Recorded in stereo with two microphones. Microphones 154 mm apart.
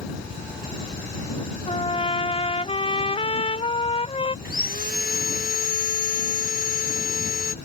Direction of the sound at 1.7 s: 40° left (ahead or behind).